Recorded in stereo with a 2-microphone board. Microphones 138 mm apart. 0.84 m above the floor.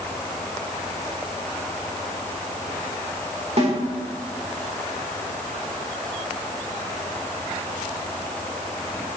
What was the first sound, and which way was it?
A snare drum, 55° right (ahead or behind).